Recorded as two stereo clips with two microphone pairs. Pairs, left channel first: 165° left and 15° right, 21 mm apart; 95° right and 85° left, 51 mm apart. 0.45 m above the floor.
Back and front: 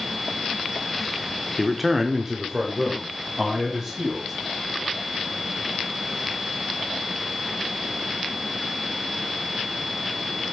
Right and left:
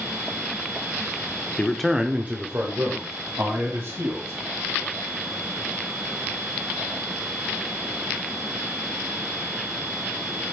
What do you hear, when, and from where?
1.6 s a man speaking: 105° right, 0.8 m; by 4.3 s 55° left, 3.5 m